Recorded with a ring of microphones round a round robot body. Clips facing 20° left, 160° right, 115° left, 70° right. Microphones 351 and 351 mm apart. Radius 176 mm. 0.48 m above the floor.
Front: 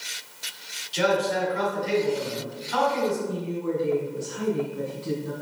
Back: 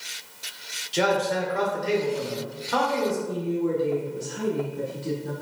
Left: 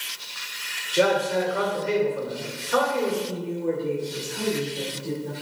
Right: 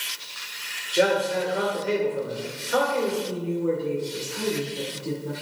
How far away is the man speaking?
About 2 m.